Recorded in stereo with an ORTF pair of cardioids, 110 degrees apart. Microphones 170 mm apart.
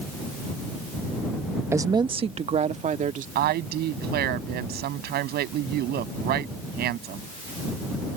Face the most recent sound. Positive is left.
turn(degrees=-70)